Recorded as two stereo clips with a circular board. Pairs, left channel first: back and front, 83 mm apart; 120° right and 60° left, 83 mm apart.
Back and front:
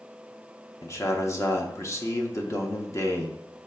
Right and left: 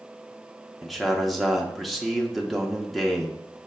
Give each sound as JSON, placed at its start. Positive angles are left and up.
{"t": 0.8, "sound": "a man speaking", "azimuth_deg": 150, "distance_m": 0.7}